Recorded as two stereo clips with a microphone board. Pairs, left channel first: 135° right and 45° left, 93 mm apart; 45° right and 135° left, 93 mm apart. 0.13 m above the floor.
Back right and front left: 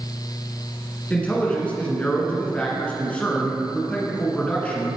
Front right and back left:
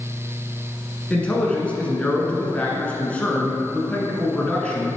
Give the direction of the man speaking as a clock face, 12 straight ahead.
3 o'clock.